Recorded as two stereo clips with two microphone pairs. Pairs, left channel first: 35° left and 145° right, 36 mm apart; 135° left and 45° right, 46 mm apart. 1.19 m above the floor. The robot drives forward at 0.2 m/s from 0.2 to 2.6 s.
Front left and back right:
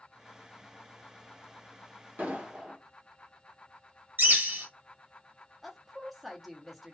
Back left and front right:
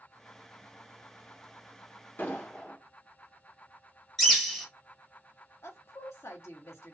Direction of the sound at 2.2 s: Straight behind.